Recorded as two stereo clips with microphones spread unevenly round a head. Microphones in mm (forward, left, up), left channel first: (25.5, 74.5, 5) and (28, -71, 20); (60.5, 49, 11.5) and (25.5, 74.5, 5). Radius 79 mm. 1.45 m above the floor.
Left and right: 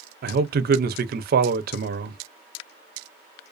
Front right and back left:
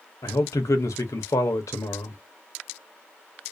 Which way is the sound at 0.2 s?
65° right.